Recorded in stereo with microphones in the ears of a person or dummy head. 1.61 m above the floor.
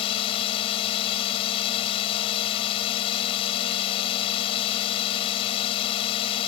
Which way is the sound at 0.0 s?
35° left (ahead or behind).